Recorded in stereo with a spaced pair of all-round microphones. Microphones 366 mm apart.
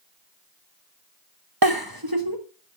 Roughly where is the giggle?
Right.